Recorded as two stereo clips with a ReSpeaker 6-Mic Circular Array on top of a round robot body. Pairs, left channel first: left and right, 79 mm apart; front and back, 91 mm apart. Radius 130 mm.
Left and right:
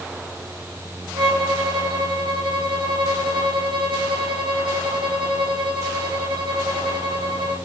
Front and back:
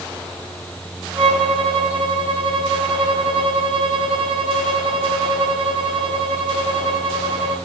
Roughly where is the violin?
Right.